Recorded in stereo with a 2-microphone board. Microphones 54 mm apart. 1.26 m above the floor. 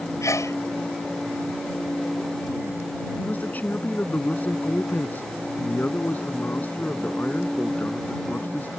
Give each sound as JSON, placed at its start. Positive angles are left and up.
{"t": 0.2, "sound": "a sneeze", "side_deg": 80}
{"t": 3.2, "sound": "a man speaking", "side_deg": 35}